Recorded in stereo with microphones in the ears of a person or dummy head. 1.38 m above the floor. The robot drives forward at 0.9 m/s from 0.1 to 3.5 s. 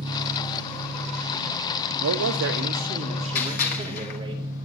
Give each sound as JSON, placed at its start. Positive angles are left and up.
{"t": 0.0, "sound": "an engine running", "side_deg": -60, "distance_m": 1.3}
{"t": 2.0, "sound": "a man speaking", "side_deg": -85, "distance_m": 0.6}
{"t": 3.4, "sound": "a gunshot", "side_deg": 50, "distance_m": 1.4}